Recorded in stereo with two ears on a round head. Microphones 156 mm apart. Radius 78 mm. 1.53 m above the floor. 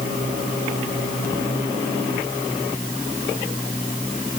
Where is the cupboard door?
I don't hear a cupboard door.